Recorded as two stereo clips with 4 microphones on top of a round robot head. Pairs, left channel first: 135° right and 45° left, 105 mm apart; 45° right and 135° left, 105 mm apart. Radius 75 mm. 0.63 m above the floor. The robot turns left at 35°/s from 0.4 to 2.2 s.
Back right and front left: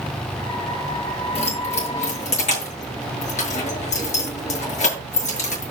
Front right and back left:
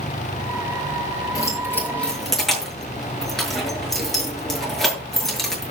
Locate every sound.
1.4 s keys jangling: 100° right, 8 m; by 5.7 s 130° right, 8 m